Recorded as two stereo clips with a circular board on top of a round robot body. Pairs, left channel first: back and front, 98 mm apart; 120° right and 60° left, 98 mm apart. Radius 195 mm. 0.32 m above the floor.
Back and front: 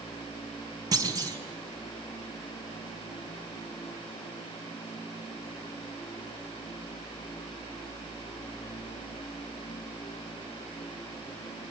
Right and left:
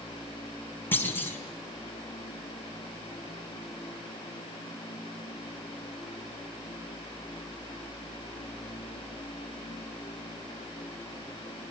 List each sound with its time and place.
0.9 s a clunk: 50° right, 4.5 m